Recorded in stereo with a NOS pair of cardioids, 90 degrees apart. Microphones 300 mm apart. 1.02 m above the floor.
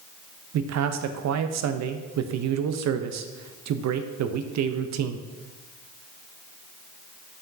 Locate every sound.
0.5 s a man speaking: 60° right, 0.7 m